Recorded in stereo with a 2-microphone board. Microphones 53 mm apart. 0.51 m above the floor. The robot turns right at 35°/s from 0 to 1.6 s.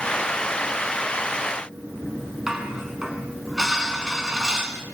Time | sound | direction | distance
2.5 | dishes clattering | 10° right (ahead or behind) | 4 m